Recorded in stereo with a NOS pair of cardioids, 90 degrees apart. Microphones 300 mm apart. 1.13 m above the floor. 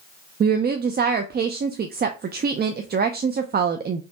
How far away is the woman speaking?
About 0.5 m.